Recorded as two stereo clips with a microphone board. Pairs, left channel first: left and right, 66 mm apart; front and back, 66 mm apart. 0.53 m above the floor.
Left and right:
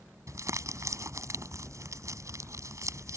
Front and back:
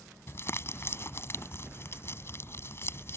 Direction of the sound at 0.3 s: 50° right.